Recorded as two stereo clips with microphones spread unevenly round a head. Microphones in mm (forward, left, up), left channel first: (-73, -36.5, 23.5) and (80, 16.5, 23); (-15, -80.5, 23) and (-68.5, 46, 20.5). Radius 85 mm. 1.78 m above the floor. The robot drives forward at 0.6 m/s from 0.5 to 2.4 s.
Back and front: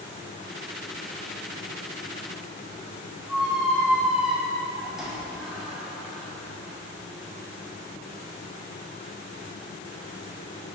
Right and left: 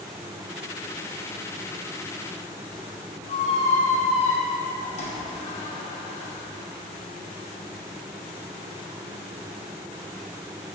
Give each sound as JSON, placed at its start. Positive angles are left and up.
{"t": 3.3, "sound": "a squeak", "azimuth_deg": -65, "distance_m": 1.0}